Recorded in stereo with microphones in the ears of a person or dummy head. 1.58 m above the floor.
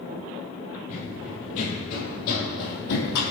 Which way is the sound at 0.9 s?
45° left (ahead or behind).